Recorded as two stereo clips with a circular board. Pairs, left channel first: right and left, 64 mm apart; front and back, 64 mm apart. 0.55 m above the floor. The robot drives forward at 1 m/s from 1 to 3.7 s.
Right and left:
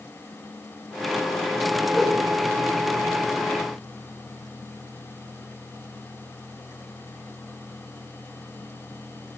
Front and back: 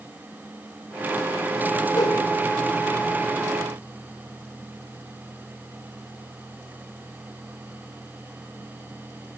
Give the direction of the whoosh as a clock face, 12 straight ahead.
12 o'clock.